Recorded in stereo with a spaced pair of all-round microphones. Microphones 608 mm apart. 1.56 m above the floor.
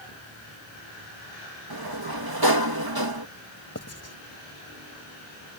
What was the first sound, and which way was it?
A sliding door, 35° right (ahead or behind).